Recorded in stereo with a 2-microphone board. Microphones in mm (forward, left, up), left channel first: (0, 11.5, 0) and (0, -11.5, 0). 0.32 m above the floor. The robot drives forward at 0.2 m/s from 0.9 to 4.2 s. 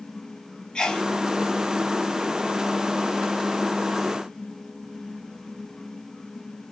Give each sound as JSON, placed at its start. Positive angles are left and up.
{"t": 0.8, "sound": "a sneeze", "side_deg": 40, "distance_m": 1.2}